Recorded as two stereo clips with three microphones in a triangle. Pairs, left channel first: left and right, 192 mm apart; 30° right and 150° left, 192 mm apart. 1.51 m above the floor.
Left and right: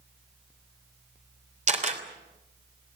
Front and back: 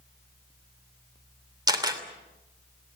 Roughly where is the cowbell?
I don't hear a cowbell.